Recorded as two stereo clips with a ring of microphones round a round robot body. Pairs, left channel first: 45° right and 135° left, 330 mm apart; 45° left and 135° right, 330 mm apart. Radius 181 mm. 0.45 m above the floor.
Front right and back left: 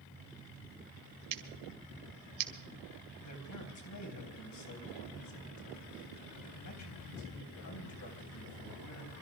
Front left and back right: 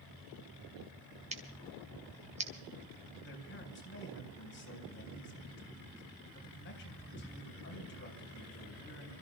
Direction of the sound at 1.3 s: 155° left.